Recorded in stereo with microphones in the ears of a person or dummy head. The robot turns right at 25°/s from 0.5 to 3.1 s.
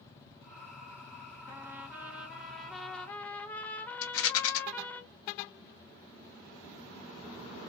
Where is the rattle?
75° left (ahead or behind), 0.7 m.